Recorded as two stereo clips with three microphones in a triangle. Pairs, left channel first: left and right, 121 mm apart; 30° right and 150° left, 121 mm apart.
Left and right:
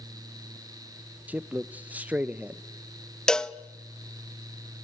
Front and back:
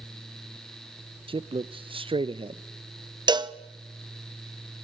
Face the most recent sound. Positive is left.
turn(degrees=170)